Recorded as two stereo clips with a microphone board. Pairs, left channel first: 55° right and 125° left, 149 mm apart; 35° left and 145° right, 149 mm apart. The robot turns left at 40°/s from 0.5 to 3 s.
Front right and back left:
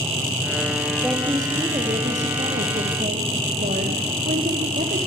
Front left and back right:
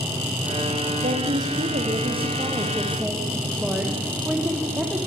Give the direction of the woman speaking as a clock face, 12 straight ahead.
5 o'clock.